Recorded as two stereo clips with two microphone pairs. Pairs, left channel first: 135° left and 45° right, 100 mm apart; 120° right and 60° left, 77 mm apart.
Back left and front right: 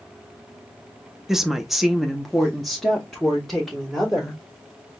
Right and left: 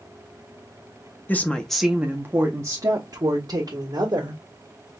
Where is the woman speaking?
135° right, 0.6 m; by 4.4 s 45° left, 1.6 m.